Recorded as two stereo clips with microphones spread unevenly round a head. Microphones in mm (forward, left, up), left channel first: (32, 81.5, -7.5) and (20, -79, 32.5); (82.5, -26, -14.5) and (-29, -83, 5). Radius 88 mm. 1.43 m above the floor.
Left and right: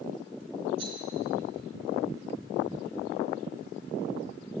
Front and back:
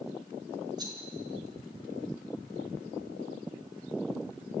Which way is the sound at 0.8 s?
100° right.